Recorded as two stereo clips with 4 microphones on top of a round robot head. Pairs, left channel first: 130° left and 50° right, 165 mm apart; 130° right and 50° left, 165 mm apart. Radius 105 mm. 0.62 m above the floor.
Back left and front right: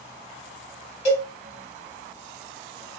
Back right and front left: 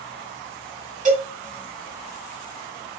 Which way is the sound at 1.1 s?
85° left.